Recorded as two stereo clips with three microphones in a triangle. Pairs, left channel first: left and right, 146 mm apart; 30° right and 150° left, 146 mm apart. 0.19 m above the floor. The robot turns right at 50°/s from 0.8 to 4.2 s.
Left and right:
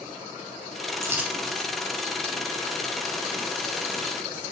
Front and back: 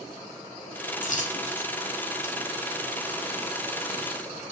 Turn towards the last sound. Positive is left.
turn(degrees=135)